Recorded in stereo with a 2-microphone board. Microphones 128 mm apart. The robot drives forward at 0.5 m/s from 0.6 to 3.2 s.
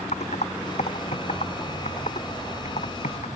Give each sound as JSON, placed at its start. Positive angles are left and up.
{"t": 0.1, "sound": "typing on a keyboard", "side_deg": 60}